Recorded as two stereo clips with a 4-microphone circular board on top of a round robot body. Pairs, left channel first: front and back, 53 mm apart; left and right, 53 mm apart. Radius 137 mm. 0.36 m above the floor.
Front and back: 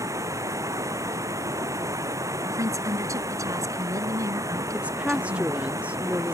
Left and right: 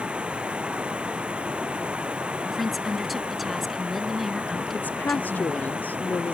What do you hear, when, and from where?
0.0 s running water: 165° right
2.5 s a woman speaking: straight behind
4.7 s a woman speaking: 125° left